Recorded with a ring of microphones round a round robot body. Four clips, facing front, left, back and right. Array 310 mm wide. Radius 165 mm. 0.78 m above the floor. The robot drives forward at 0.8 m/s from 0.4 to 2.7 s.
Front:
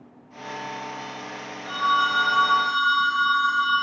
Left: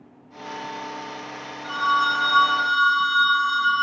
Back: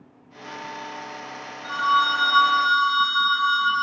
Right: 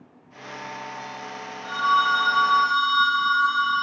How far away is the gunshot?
I don't hear a gunshot.